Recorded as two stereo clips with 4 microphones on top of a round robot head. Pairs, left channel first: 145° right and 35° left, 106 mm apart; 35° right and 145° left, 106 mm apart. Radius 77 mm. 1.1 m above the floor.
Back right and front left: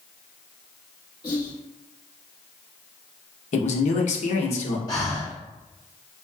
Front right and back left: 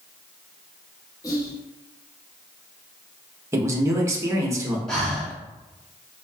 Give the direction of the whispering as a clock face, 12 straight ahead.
3 o'clock.